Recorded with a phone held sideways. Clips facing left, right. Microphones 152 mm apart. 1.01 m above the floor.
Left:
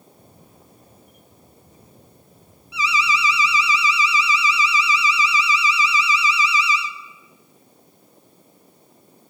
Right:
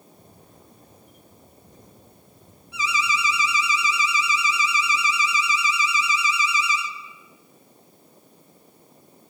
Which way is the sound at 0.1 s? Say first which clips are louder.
Left 1 dB; 5° left (ahead or behind).